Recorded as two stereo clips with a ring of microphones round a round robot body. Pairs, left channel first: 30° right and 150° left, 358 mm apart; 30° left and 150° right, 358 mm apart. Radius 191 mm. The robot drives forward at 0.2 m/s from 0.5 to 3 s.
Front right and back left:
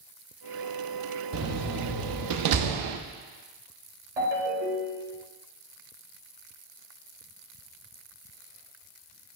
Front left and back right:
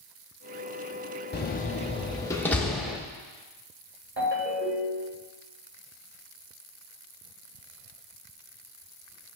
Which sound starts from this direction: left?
A door slam, at 1.3 s.